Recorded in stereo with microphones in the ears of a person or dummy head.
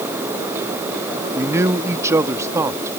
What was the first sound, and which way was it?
A man speaking, 20° right (ahead or behind).